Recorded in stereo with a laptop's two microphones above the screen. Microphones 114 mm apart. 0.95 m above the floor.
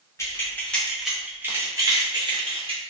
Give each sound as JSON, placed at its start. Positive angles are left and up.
{"t": 0.2, "sound": "keys jangling", "side_deg": 25, "distance_m": 0.9}